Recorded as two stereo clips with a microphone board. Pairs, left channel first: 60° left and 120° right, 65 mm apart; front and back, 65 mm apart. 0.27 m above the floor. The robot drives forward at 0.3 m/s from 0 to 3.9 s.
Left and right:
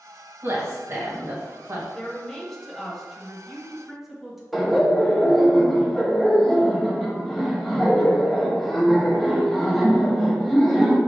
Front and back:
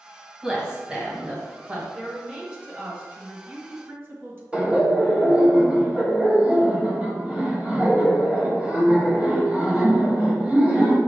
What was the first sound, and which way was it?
A woman speaking, 105° right.